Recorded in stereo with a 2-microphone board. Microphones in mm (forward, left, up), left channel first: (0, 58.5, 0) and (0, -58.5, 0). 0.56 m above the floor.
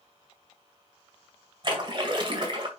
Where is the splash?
45° right (ahead or behind), 2 m.